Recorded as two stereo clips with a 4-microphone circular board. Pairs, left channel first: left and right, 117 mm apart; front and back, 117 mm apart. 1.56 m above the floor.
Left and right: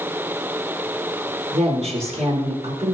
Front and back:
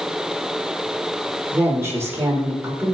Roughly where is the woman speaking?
Right.